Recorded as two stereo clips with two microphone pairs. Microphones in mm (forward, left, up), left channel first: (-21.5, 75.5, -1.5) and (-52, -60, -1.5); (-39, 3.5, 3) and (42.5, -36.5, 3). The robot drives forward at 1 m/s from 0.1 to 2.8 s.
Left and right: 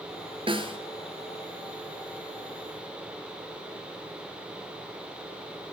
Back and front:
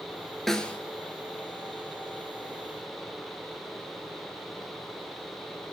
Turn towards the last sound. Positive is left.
turn(degrees=-170)